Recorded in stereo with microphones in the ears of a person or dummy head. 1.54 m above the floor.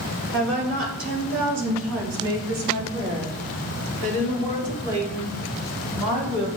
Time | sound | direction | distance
0.3 | a woman speaking | 60° right (ahead or behind) | 1.4 m